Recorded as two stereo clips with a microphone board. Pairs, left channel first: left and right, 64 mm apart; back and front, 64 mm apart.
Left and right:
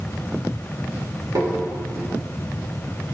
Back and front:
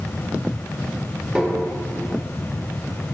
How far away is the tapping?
About 2.5 m.